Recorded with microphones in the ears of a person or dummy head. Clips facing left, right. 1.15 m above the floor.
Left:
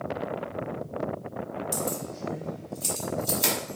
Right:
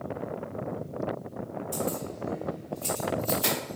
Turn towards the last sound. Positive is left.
turn(degrees=30)  # may be behind; listen again after turning